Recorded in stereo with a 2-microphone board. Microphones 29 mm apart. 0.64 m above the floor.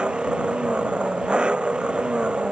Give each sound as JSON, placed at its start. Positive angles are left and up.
{"t": 0.0, "sound": "an engine running", "side_deg": -35}